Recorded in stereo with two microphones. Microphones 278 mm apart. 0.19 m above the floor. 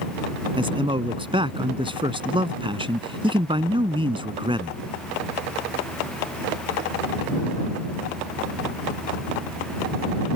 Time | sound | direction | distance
0.6 | a man speaking | 20° right (ahead or behind) | ?